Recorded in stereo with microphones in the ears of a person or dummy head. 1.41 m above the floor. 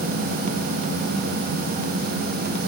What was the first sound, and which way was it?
Only background noise.